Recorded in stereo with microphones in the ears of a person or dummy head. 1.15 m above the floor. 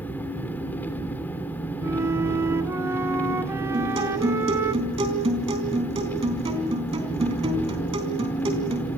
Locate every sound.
0.0 s an engine running: 10° left (ahead or behind), 3 m
1.8 s a flute: 15° right (ahead or behind), 1.9 m
3.7 s a guitar: 25° right (ahead or behind), 4 m